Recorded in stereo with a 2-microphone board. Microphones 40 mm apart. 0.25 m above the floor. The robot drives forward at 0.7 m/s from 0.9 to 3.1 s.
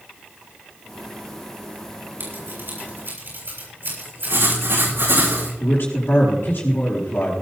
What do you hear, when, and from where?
2.2 s scissors: 60° right (ahead or behind), 7 m; by 4.6 s 55° right (ahead or behind), 7 m
4.3 s writing: 90° right, 8.5 m
5.6 s a man speaking: 65° left (ahead or behind), 4.5 m